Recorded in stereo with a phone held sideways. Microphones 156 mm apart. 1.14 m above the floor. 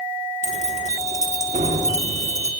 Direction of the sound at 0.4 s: 50° right (ahead or behind).